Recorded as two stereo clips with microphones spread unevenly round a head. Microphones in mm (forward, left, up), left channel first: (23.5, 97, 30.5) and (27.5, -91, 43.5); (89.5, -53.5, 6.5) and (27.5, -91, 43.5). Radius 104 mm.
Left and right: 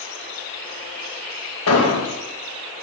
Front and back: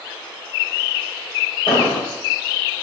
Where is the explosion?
100° left, 1.2 m.